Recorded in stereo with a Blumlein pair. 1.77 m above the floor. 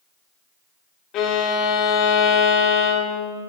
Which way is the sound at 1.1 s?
35° left.